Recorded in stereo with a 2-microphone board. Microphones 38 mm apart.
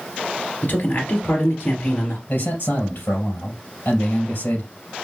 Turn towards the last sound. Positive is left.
turn(degrees=65)  # may be behind; listen again after turning